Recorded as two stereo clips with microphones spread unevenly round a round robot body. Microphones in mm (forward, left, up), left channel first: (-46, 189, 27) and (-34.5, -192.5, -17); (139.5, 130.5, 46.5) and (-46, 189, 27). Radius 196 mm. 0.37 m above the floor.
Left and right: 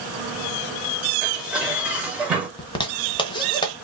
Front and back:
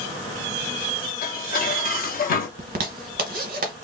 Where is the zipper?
175° left, 0.8 m.